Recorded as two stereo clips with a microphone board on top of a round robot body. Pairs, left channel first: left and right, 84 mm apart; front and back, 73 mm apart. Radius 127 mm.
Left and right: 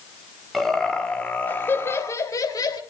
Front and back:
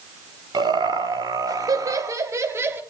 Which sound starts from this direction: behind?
Laughter, at 0.5 s.